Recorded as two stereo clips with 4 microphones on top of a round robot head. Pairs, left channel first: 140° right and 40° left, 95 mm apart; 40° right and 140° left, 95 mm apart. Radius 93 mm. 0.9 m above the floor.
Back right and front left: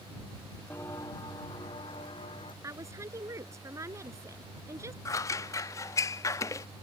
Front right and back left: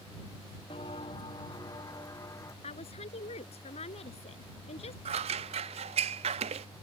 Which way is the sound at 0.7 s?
70° right.